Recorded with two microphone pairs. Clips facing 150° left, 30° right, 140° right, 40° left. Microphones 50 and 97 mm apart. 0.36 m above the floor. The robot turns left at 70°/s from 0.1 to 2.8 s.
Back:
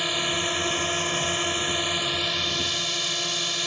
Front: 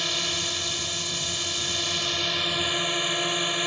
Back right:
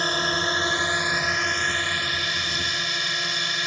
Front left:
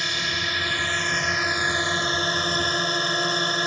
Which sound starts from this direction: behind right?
A drone, at 0.0 s.